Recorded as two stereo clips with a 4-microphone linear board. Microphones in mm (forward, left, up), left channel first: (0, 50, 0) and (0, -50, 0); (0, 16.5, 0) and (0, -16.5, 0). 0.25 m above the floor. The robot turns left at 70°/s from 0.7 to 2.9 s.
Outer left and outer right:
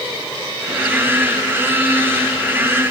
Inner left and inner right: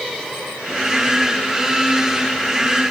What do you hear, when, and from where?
Only background noise.